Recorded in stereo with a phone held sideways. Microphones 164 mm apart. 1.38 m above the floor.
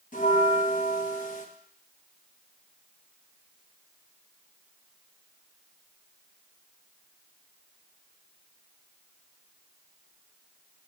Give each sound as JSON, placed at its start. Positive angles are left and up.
{"t": 0.1, "sound": "a bell", "side_deg": 50, "distance_m": 0.9}